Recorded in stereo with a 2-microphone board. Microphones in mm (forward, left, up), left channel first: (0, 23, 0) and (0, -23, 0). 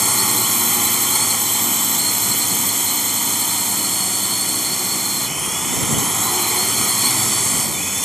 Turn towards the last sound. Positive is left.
turn(degrees=0)  # may be behind; listen again after turning